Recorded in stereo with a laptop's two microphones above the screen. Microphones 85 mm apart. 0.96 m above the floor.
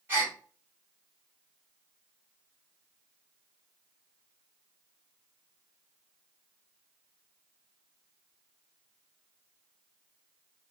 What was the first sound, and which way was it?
A gasp, 25° right (ahead or behind).